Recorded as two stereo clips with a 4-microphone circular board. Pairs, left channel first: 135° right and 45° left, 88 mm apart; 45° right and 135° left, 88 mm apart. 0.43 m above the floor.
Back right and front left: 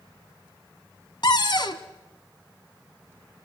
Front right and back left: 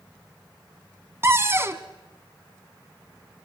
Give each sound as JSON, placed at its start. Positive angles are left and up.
{"t": 1.2, "sound": "a cupboard door", "azimuth_deg": -165, "distance_m": 1.1}